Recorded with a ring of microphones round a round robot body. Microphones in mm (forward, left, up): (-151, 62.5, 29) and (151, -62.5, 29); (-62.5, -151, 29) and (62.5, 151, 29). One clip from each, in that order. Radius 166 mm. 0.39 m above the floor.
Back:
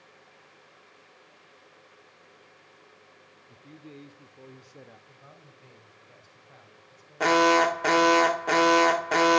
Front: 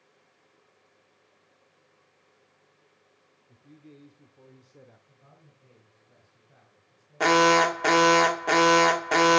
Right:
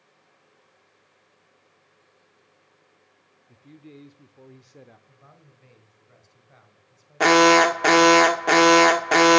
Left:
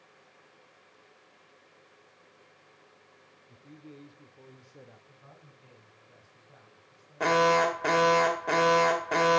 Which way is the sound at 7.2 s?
95° right.